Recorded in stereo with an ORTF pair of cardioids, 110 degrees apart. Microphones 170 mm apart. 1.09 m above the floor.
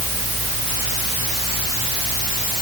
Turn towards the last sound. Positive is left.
No sound to turn to.